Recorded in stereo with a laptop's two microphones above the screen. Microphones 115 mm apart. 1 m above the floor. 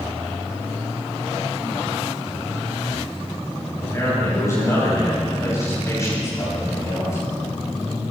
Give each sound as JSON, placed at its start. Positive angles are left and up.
{"t": 3.8, "sound": "a man speaking", "side_deg": 25, "distance_m": 7.0}